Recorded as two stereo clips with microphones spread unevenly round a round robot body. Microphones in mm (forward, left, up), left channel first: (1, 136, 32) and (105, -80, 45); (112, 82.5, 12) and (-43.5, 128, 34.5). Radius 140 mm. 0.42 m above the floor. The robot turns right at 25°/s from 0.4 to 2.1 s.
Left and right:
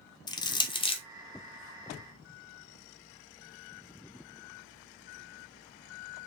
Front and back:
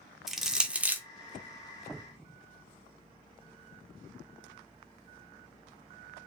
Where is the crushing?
65° left, 0.7 m; by 1.0 s 80° left, 0.7 m.